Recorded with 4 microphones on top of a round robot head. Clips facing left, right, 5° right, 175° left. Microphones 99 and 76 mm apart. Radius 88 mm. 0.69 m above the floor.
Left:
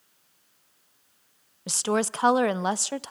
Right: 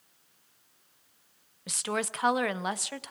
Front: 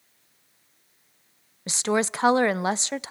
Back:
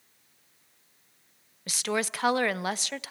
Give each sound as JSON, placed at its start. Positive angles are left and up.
{"t": 1.7, "sound": "a woman speaking", "azimuth_deg": 50, "distance_m": 0.6}